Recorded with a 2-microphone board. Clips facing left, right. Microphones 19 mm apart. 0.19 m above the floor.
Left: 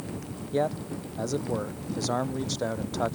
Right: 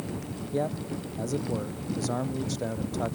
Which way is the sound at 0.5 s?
25° left (ahead or behind).